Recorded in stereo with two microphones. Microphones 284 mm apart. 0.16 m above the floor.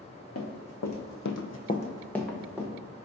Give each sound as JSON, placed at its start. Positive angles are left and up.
{"t": 0.3, "sound": "running footsteps", "side_deg": 60, "distance_m": 1.0}